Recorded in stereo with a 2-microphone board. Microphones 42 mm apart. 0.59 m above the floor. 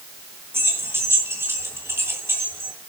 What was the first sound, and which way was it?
Keys jangling, 80° right.